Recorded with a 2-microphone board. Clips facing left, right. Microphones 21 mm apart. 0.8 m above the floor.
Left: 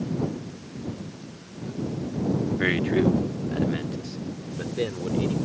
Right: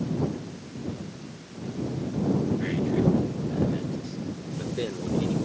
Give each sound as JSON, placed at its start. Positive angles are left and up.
{"t": 2.6, "sound": "a man speaking", "side_deg": 60}